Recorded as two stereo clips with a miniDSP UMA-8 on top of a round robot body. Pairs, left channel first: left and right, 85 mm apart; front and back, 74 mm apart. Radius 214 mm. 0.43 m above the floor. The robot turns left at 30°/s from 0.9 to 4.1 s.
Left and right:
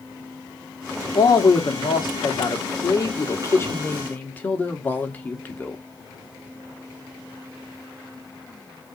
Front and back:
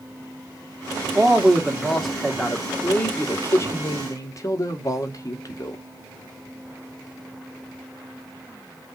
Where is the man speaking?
115° left, 1.4 m; by 5.8 s 25° left, 1.4 m.